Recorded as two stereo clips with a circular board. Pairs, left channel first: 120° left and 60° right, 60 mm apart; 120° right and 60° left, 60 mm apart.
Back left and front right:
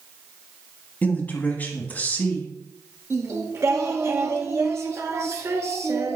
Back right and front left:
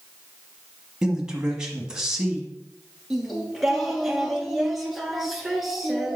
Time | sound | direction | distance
1.0 | a man speaking | 125° left | 1.2 m
3.1 | singing | 25° right | 0.9 m